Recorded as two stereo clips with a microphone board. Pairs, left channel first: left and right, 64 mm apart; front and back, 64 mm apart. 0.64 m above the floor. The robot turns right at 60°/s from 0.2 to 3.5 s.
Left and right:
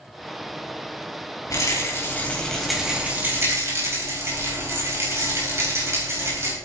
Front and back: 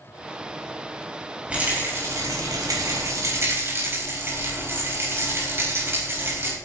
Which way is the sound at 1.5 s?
110° left.